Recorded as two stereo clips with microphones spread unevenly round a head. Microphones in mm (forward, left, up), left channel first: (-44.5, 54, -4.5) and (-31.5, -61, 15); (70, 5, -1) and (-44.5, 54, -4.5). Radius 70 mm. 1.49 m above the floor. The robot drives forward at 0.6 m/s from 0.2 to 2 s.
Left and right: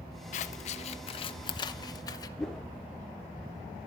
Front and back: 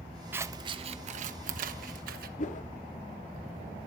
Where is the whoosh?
5° left, 0.6 m.